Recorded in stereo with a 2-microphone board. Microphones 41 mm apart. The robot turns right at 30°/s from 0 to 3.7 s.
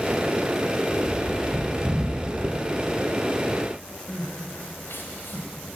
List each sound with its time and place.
0.9 s a bird: 70° left (ahead or behind), 8.5 m
2.4 s a dropped coin: 45° right (ahead or behind), 2.5 m; by 2.5 s 40° right (ahead or behind), 2.5 m
4.1 s crying: 65° left (ahead or behind), 3.5 m